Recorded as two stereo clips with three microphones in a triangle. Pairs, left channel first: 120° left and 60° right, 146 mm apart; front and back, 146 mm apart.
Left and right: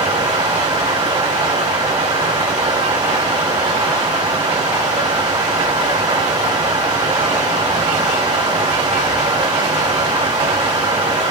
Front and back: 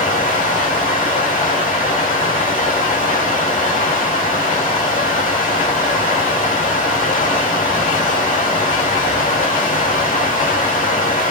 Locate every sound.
0.0 s running water: 10° right, 1.9 m